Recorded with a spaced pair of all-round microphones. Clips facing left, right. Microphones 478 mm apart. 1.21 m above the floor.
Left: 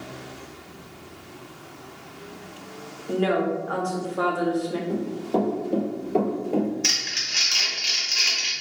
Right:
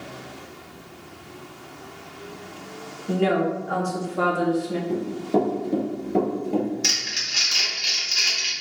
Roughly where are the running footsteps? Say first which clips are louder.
Right 4 dB; right.